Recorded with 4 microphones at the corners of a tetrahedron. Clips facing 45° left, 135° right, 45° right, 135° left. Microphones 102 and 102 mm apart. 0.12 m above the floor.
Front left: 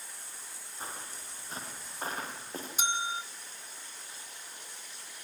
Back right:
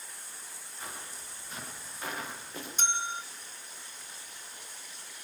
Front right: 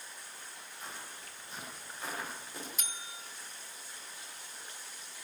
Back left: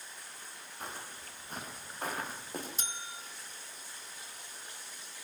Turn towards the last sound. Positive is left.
turn(degrees=120)